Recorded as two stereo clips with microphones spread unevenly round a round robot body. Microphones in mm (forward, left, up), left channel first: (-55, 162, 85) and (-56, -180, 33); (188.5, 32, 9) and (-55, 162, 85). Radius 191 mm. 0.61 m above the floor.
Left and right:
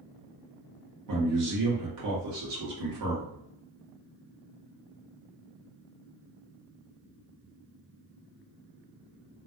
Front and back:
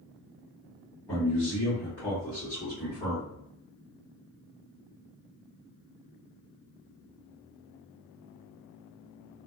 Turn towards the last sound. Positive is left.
turn(degrees=-100)